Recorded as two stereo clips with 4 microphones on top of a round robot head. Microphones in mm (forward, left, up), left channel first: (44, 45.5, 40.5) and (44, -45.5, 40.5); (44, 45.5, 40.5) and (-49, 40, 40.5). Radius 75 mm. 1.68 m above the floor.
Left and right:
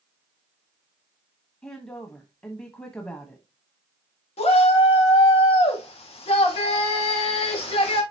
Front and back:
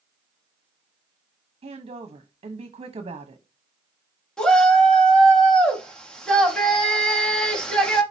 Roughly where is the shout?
Left.